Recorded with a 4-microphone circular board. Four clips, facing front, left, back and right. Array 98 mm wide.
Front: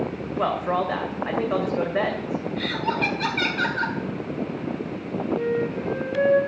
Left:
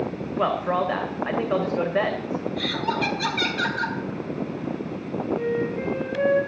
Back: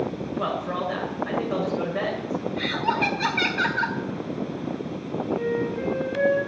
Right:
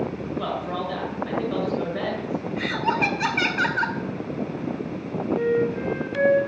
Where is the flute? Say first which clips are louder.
Right 4 dB, front 2 dB; 90° right, 6.5 m.